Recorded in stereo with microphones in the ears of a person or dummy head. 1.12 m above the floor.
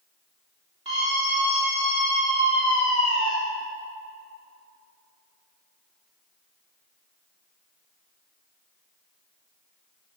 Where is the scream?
30° right (ahead or behind), 3.5 m; by 3.4 s 65° right (ahead or behind), 2 m.